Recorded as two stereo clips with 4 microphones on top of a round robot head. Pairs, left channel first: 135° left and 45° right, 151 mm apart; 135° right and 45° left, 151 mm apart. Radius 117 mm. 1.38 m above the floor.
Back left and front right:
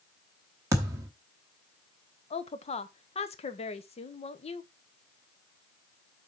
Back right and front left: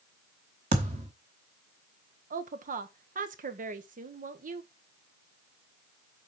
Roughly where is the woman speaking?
Left.